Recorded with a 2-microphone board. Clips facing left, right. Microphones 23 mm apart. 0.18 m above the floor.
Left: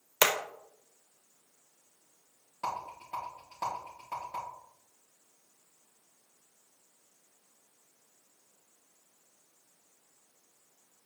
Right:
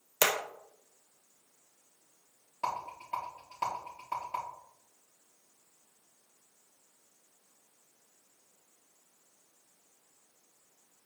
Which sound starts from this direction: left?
Hammering, at 0.2 s.